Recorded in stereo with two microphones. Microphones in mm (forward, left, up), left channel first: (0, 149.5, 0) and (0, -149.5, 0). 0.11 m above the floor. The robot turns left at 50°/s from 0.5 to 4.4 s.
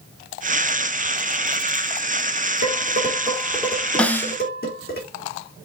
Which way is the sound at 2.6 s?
55° right (ahead or behind).